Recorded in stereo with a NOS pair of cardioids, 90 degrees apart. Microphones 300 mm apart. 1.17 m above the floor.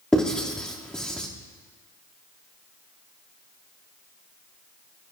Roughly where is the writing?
Ahead.